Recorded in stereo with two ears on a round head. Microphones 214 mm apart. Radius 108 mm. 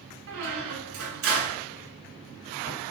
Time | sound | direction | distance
0.3 | a squeak | 55° right (ahead or behind) | 2.5 m